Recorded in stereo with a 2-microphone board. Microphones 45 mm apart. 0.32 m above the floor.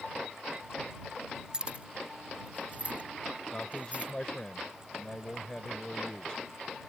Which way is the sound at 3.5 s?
20° left (ahead or behind).